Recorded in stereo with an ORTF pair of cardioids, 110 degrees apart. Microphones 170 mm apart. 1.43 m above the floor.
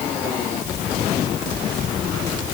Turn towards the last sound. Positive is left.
No sound to turn to.